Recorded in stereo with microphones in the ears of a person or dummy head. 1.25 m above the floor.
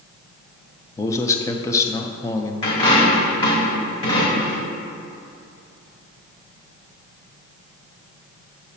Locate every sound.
1.0 s a man speaking: 25° left (ahead or behind), 0.6 m
2.6 s a dropped coin: 25° left (ahead or behind), 1.9 m